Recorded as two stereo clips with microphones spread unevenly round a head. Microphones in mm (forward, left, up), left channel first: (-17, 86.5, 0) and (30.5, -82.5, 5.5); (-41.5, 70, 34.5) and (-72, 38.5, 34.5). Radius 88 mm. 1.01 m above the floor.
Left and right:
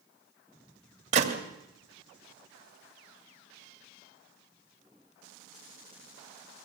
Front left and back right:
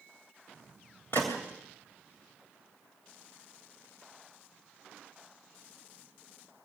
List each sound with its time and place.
1.1 s a gunshot: 20° right, 2.5 m